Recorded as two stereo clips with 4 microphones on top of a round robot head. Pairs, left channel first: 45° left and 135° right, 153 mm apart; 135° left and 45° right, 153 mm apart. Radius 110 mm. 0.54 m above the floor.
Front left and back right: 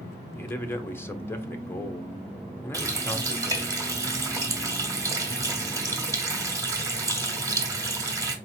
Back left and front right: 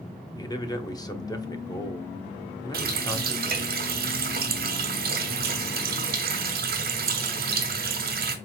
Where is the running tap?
60° right, 1.2 m.